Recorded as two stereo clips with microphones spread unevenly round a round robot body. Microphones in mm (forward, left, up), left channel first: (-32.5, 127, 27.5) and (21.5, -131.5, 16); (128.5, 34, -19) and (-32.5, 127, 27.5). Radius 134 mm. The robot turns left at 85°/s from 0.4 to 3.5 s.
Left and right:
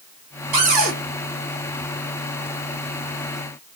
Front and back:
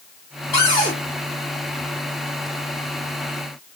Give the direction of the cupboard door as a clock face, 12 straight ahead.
3 o'clock.